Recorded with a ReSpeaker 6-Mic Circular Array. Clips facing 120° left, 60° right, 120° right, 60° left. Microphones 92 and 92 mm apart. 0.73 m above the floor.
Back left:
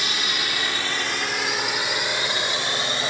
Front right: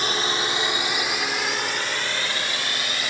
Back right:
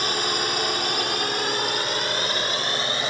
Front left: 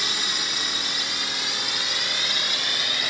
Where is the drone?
100° right; by 3.1 s 175° right.